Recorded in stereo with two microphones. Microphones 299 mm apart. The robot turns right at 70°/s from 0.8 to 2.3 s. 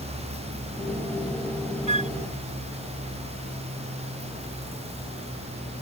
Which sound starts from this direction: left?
A flute, at 1.9 s.